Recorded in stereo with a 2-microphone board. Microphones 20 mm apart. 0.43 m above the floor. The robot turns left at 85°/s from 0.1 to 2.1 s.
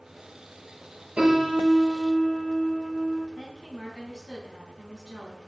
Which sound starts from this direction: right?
A piano, at 1.2 s.